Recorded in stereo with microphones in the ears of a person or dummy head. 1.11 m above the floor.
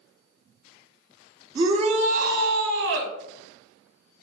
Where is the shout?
25° right (ahead or behind), 0.8 m; by 3.1 s 70° right (ahead or behind), 1.1 m.